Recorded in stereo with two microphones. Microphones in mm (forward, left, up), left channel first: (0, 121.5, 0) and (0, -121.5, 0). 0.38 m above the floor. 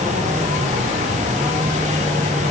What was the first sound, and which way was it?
Only background noise.